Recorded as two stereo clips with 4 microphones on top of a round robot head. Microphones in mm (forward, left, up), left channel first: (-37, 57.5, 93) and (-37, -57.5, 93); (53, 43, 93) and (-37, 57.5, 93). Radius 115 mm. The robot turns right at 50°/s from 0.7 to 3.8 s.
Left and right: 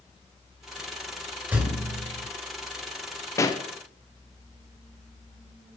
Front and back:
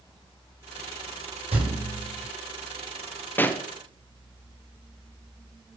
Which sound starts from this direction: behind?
A thud, at 1.5 s.